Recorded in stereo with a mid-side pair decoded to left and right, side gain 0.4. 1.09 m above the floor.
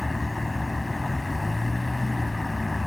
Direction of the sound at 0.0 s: 20° left.